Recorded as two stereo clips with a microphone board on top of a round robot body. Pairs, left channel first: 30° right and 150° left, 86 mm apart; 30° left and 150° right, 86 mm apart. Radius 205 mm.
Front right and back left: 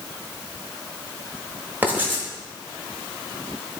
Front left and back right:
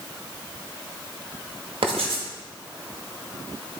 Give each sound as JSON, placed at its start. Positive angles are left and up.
{"t": 1.8, "sound": "writing", "azimuth_deg": -140, "distance_m": 1.3}